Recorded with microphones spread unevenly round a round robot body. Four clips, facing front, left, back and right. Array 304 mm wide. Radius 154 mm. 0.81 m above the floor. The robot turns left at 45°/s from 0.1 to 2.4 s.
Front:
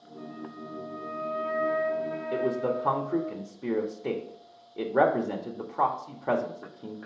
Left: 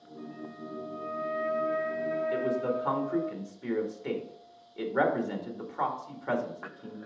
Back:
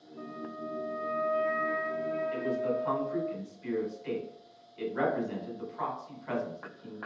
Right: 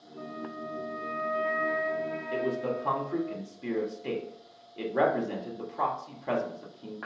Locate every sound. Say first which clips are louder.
0.2 s a flute: right 4 dB, back 1 dB; 145° right, 2.0 m; by 3.3 s 115° left, 2.0 m
2.3 s a man speaking: right 3 dB, front 8 dB; straight ahead, 1.8 m; by 7.0 s 5° right, 1.8 m